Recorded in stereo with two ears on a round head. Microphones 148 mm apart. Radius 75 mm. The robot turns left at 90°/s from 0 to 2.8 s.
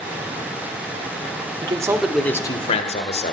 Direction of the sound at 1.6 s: 135° right.